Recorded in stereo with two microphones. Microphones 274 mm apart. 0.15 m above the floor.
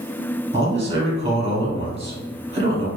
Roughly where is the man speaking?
Right.